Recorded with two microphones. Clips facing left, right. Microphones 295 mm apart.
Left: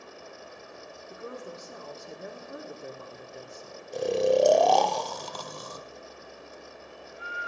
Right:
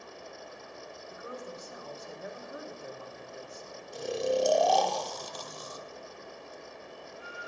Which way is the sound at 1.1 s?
50° left (ahead or behind).